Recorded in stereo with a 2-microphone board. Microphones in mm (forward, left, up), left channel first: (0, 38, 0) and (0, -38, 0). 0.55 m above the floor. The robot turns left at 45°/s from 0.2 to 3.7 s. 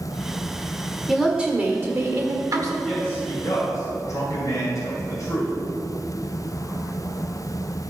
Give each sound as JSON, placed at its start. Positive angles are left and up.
{"t": 1.1, "sound": "a woman speaking", "azimuth_deg": -5, "distance_m": 1.5}
{"t": 2.8, "sound": "a man speaking", "side_deg": 10, "distance_m": 2.5}